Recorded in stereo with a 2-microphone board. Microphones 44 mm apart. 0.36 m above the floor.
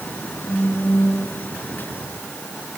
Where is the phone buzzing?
60° left (ahead or behind), 3.5 m.